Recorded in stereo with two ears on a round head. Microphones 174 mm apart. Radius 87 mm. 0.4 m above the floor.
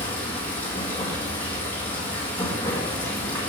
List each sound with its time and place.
0.0 s running water: 10° left (ahead or behind), 2 m